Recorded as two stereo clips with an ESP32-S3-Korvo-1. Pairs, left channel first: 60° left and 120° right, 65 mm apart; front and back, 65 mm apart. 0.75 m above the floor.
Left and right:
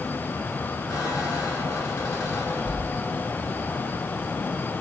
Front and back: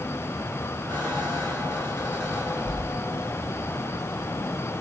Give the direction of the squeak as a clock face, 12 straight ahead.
11 o'clock.